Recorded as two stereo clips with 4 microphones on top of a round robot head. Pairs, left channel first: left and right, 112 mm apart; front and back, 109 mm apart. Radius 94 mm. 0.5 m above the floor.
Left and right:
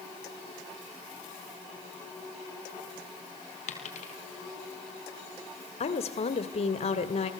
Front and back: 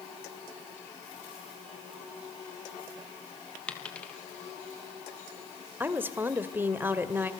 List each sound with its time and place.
3.7 s a dropped coin: 85° left, 4 m
5.8 s a woman speaking: 115° left, 2.5 m